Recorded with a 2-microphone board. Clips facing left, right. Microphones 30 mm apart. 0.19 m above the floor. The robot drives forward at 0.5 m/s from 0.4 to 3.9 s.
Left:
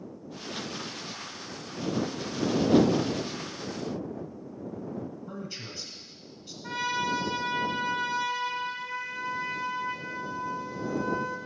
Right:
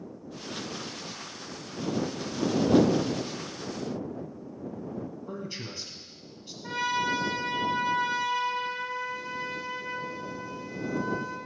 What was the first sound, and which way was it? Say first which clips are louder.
A man speaking: right 2 dB; 15° right (ahead or behind).